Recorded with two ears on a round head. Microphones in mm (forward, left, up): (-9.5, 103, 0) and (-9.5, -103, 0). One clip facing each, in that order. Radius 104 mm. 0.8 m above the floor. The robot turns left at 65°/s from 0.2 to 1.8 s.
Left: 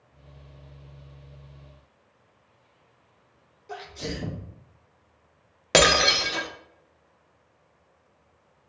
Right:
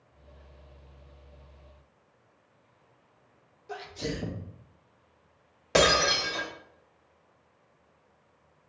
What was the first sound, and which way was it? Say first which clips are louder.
A sneeze: even; centre (ahead or behind).